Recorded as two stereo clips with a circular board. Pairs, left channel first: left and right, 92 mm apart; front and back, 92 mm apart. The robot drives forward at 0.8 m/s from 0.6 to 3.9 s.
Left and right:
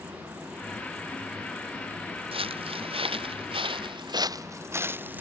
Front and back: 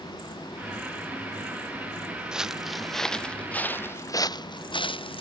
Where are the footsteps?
95° right; by 5.2 s 20° right.